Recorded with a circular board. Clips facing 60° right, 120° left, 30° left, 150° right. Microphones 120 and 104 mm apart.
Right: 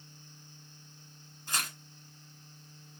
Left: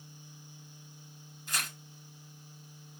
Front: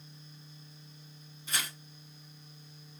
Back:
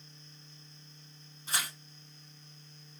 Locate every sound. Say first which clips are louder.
1.5 s tearing paper: right 2 dB, back 1 dB; 105° right, 1.7 m